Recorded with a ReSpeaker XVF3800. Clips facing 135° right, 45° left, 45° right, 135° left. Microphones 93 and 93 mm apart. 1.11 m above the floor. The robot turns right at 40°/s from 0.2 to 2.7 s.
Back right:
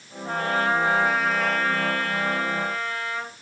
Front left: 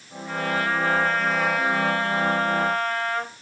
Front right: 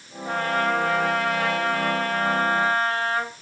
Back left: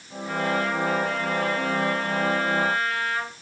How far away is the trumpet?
About 3 m.